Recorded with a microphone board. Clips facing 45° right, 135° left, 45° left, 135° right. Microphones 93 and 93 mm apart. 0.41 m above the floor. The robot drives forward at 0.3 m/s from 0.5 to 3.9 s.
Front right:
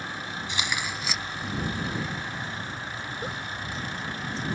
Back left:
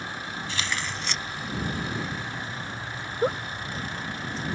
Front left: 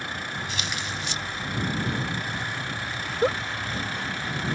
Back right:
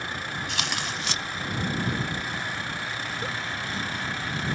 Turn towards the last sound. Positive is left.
turn(degrees=90)